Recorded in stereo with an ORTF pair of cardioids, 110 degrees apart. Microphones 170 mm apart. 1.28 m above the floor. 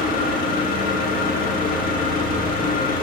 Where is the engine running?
60° left, 1.4 m.